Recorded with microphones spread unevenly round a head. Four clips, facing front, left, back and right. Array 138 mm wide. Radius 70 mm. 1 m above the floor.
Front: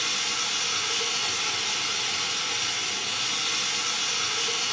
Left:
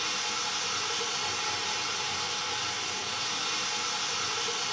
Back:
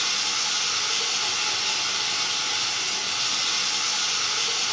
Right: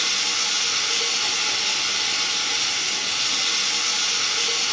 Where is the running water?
85° right, 1.6 m.